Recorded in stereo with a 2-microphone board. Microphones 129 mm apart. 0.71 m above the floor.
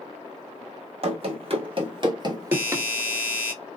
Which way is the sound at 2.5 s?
10° right (ahead or behind).